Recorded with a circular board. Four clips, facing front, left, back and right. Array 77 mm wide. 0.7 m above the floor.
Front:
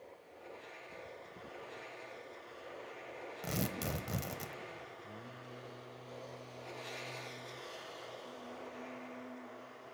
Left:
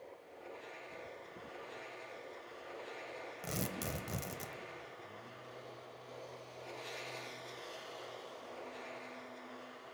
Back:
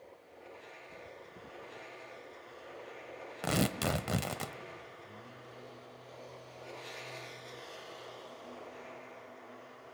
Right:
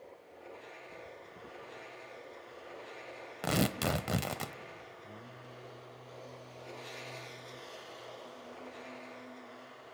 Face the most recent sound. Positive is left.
turn(degrees=-40)